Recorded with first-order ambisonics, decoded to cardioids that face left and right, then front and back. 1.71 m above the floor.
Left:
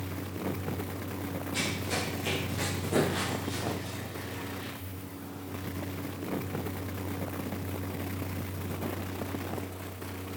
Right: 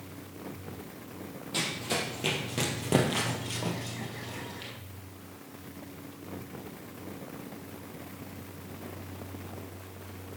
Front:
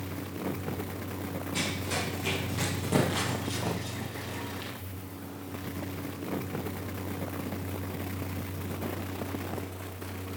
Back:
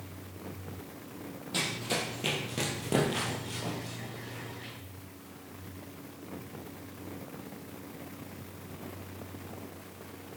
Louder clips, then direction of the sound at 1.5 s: Right 2 dB, back 1 dB; 145° right.